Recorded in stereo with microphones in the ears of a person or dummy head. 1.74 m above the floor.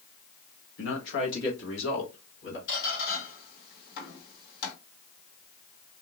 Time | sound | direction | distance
0.8 | a man speaking | 75° left (ahead or behind) | 1.2 m
2.7 | a squeak | 60° left (ahead or behind) | 1.8 m